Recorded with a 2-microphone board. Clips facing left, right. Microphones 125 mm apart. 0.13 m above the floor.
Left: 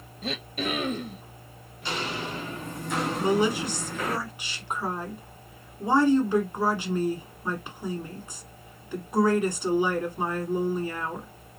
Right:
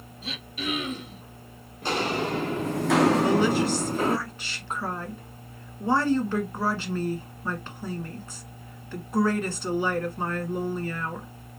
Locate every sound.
0.2 s throat clearing: 50° left (ahead or behind), 0.8 m
1.8 s footsteps: 50° right (ahead or behind), 1.1 m; by 4.2 s 25° right (ahead or behind), 0.7 m
3.2 s a woman speaking: 15° left (ahead or behind), 1.1 m